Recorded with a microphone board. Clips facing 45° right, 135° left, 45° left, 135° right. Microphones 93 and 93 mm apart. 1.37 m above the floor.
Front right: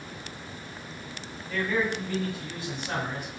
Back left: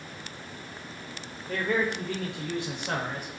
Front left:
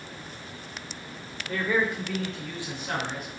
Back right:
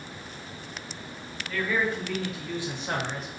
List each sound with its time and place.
1.5 s a man speaking: 100° left, 0.6 m; by 3.3 s 170° left, 1.0 m